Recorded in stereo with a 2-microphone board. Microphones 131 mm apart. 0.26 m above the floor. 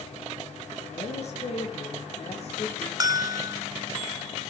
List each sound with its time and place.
0.8 s a woman speaking: 55° left (ahead or behind), 7 m; by 2.9 s 60° left (ahead or behind), 9.5 m
3.0 s a bell: 30° right (ahead or behind), 0.5 m